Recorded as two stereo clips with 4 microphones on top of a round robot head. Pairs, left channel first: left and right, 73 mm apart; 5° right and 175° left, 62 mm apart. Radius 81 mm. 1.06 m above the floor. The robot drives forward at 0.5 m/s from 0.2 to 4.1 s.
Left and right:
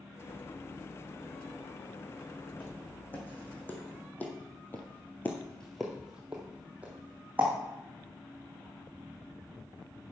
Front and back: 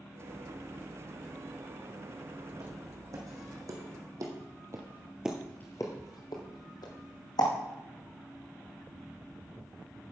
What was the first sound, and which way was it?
Footsteps, 155° left.